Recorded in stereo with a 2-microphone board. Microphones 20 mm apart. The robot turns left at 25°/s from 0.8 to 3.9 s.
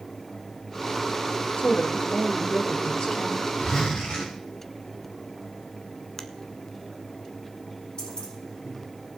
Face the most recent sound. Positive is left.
turn(degrees=55)  # may be behind; listen again after turning